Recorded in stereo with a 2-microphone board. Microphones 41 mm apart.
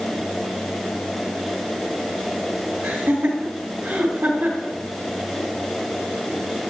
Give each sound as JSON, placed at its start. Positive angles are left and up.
{"t": 2.8, "sound": "laughter", "side_deg": -65, "distance_m": 4.0}